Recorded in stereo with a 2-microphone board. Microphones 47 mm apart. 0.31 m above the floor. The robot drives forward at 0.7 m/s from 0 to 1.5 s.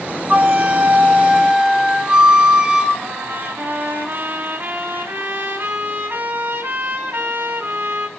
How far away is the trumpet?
About 3 m.